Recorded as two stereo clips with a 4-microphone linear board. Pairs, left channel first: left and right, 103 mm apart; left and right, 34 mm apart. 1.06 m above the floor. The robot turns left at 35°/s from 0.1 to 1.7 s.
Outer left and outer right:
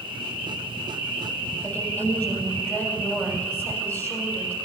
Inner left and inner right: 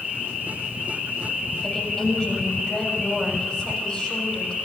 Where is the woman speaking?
20° left (ahead or behind), 6.5 m.